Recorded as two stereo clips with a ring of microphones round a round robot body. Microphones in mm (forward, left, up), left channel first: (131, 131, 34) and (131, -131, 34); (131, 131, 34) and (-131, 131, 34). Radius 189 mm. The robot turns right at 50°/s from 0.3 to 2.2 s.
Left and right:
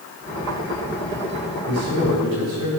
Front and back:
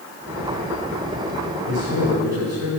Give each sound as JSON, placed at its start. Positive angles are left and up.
{"t": 1.7, "sound": "a man speaking", "azimuth_deg": -140, "distance_m": 3.5}